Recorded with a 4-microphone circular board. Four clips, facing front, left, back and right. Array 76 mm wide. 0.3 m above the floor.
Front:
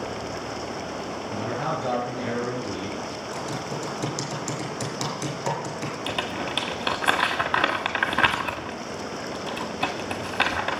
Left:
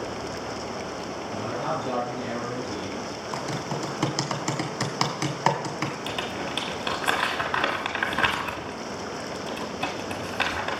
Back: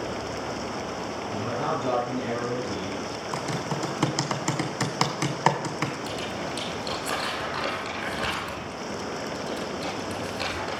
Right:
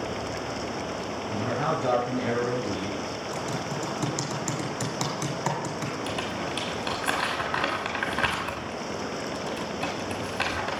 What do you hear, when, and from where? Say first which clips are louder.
1.3 s a man speaking: right 2 dB, even; 65° right, 5.5 m; by 3.0 s 70° right, 3.5 m
3.3 s typing on a keyboard: left 3 dB, back 2 dB; 145° left, 2.0 m
6.1 s crumpling: even, front 2 dB; 10° left, 1.5 m